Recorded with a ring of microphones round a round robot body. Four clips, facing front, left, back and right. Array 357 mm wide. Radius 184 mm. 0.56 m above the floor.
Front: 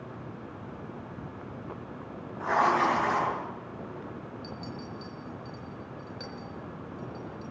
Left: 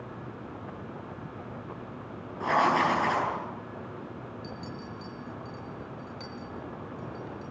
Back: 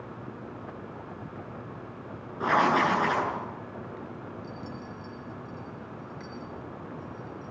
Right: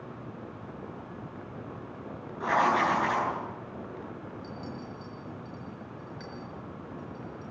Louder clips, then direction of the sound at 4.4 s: Even, even; 30° left.